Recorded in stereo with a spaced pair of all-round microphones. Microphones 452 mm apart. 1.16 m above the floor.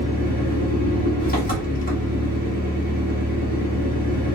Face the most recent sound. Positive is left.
turn(degrees=20)  # may be behind; listen again after turning